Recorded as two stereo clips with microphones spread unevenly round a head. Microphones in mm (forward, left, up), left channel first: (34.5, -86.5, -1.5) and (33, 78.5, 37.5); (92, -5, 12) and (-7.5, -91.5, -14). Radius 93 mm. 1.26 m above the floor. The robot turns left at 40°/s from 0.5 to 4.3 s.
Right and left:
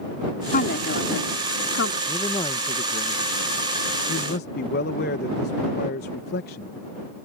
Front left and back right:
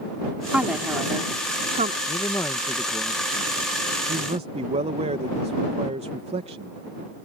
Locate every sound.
0.5 s a woman speaking: 55° right; by 2.0 s 110° right
2.1 s a man speaking: 15° right; by 6.7 s 105° right